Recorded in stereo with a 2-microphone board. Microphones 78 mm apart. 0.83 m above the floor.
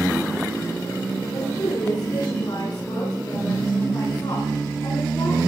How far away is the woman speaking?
About 7.5 m.